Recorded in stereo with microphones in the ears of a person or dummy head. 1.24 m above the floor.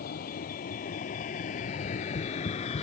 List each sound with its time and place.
0.0 s a vehicle: 45° left (ahead or behind); by 2.8 s 30° left (ahead or behind)
1.7 s tapping: 30° left (ahead or behind)